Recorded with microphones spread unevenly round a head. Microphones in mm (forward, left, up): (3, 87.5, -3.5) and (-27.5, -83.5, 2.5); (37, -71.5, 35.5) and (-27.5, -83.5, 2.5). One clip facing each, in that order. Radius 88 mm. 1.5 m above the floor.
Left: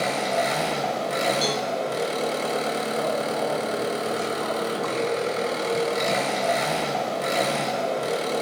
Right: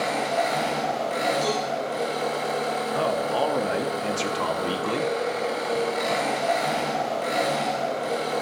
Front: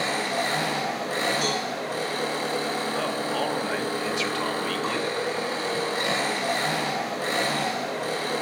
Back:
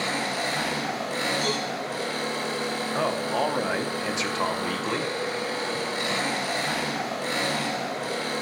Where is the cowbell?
25° left, 3.5 m.